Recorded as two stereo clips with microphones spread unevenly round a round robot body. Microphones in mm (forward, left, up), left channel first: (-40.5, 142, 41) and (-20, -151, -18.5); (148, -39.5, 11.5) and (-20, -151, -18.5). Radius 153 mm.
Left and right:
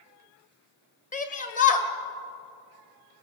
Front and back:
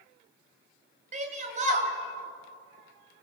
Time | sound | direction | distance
1.1 | a shout | 160° left | 2 m